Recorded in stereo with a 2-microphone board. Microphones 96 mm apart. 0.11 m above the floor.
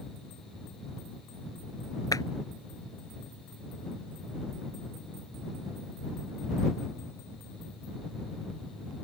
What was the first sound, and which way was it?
A clap, 40° left (ahead or behind).